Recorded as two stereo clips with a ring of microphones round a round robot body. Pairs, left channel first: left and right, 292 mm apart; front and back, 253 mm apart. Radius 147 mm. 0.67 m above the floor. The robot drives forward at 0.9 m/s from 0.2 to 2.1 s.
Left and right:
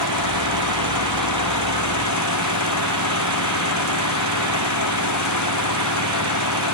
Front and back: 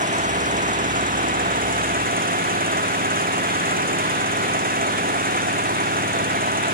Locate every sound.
0.0 s an engine running: 120° left; by 6.8 s 125° left